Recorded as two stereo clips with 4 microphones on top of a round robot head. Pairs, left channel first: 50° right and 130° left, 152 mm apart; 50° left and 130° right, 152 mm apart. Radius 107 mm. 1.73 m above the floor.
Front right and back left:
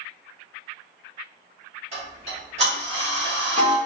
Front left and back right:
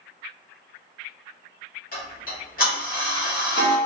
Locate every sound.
1.9 s ticking: 80° left, 1.3 m